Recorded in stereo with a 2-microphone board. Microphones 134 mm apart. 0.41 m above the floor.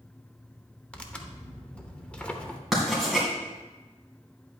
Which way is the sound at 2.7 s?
5° right (ahead or behind).